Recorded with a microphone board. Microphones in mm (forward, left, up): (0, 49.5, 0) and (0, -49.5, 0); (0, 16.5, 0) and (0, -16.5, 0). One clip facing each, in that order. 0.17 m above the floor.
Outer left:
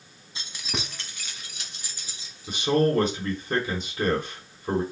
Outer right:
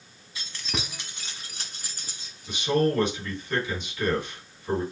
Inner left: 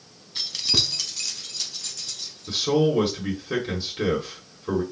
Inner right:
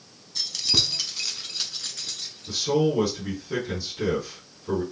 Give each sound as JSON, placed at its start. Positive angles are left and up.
{"t": 0.3, "sound": "keys jangling", "side_deg": 30, "distance_m": 0.7}
{"t": 2.5, "sound": "a man speaking", "side_deg": 40, "distance_m": 1.8}